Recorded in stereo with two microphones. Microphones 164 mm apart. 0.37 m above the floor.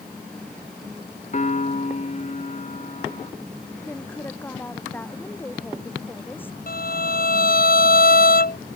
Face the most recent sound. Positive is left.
turn(degrees=65)  # may be behind; listen again after turning